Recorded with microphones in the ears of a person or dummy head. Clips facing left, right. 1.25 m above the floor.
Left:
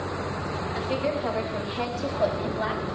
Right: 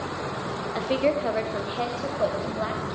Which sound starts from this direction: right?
A woman speaking, at 0.8 s.